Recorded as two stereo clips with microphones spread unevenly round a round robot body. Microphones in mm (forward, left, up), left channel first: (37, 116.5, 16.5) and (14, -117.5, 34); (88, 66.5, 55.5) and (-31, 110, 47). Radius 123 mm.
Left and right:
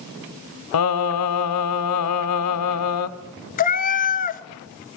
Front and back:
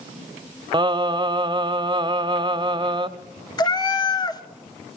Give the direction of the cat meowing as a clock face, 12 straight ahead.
11 o'clock.